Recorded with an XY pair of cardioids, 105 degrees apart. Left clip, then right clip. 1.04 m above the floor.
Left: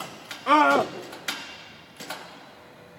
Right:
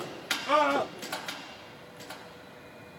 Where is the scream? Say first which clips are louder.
Left 7 dB; 70° left, 0.7 m.